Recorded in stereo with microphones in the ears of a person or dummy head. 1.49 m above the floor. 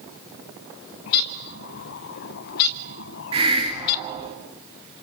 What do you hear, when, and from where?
1.1 s a bird: 50° left (ahead or behind), 0.7 m
3.3 s a hiss: 25° right (ahead or behind), 3 m